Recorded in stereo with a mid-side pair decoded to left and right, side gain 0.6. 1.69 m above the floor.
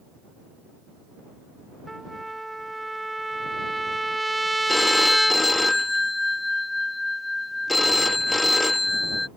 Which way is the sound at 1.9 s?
10° right.